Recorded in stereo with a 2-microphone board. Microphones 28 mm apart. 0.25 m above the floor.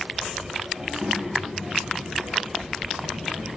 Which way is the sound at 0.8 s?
60° right (ahead or behind).